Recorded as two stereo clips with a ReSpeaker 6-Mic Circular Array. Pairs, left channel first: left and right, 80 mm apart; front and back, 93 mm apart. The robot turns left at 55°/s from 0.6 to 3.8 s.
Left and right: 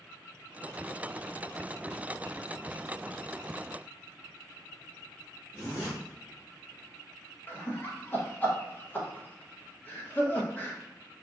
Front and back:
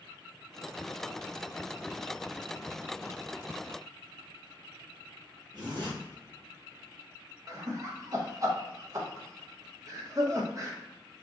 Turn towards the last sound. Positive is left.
turn(degrees=145)